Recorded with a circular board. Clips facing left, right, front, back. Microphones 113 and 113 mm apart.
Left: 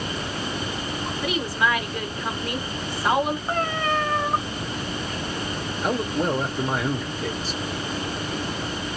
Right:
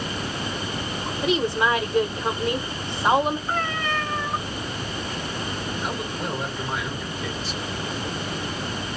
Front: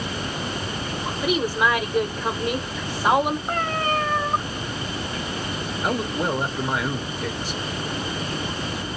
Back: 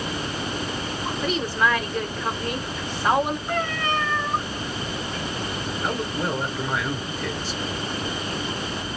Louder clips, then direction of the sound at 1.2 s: Right 3 dB, front 2 dB; 60° right.